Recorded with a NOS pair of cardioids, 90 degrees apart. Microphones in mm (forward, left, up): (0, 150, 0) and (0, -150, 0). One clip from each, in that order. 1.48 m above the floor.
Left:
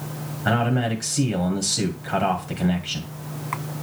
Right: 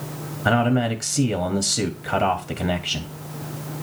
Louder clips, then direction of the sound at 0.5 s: Right 3 dB; 25° right.